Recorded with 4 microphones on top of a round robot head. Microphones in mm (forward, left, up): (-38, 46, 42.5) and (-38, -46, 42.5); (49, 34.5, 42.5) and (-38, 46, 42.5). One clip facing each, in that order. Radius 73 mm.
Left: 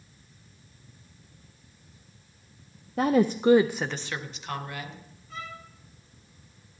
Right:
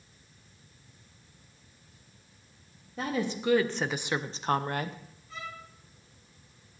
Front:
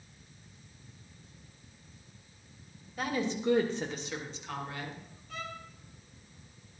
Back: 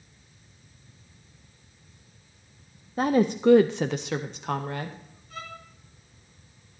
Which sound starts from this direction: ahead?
A violin, at 5.3 s.